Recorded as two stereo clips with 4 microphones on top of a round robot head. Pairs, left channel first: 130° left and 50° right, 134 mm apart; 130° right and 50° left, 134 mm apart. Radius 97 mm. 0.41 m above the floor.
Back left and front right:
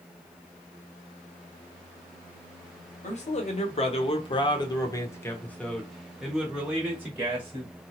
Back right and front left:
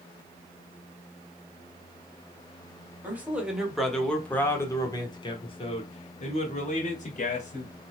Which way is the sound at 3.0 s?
125° left.